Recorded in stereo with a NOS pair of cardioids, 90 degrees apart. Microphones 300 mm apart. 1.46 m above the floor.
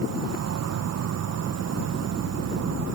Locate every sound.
0.0 s an insect: 55° right